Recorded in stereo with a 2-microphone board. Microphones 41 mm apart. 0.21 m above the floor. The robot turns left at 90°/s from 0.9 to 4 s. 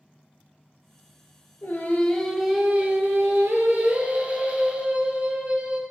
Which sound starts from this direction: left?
Singing, at 1.6 s.